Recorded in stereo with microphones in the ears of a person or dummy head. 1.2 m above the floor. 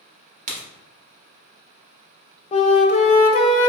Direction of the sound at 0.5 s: 40° right (ahead or behind).